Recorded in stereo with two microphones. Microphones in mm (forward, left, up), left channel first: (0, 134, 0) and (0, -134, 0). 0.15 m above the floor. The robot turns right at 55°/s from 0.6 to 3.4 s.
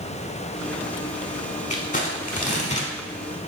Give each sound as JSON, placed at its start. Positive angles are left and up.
{"t": 1.7, "sound": "crumpling", "side_deg": 25, "distance_m": 0.6}